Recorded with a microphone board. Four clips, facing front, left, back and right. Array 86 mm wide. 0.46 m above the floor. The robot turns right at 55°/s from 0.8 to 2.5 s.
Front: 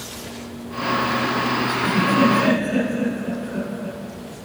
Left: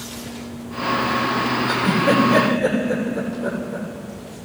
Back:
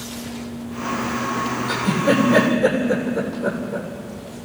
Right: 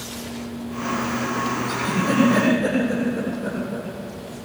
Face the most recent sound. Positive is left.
turn(degrees=145)